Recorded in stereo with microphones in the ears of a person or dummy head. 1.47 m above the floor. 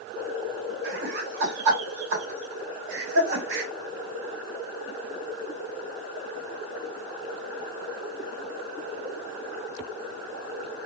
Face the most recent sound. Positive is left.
turn(degrees=-65)  # may be behind; listen again after turning